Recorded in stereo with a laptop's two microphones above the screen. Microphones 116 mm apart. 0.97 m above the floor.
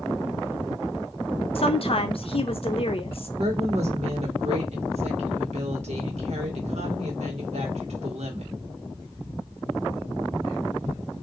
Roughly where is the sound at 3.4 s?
Right.